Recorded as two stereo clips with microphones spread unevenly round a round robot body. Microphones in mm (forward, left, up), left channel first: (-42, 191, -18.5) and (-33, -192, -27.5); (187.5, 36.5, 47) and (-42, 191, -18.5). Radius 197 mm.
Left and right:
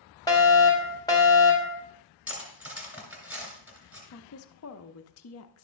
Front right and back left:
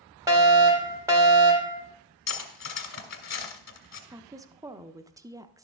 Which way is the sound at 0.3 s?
165° left.